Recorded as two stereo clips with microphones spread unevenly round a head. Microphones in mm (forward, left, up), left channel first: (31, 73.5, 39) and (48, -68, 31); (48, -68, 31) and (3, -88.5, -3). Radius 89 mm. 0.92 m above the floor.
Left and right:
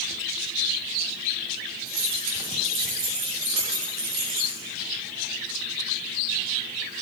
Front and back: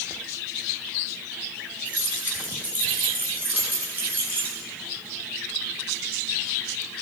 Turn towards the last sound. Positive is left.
turn(degrees=-100)